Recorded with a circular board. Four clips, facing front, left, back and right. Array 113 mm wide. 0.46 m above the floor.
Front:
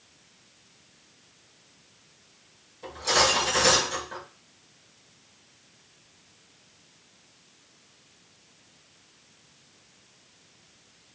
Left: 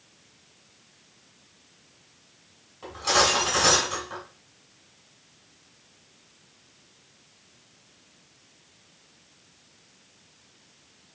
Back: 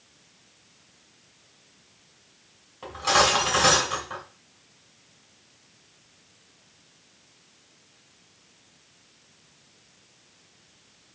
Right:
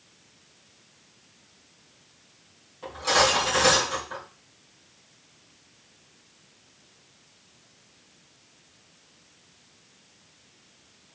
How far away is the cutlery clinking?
About 2.5 m.